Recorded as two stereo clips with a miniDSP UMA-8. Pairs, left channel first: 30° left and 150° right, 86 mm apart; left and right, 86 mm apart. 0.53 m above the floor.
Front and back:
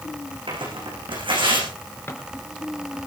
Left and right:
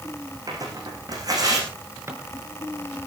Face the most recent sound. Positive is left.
turn(degrees=-30)